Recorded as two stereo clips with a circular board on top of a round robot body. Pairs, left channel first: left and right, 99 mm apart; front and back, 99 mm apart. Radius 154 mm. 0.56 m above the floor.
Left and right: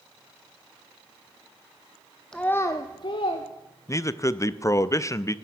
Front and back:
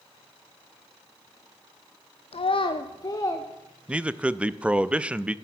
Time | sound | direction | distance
2.3 | a child speaking | 5° left | 0.7 m
3.9 | a man speaking | 110° left | 0.6 m